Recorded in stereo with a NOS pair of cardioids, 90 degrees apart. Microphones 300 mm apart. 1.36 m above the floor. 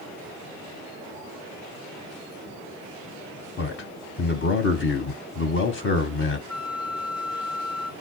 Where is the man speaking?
40° left, 0.8 m.